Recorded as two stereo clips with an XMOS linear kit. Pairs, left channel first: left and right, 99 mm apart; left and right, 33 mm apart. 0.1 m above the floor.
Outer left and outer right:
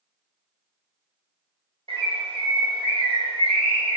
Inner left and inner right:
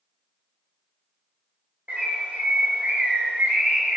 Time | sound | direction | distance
1.9 | a bird | 75° right (ahead or behind) | 1.0 m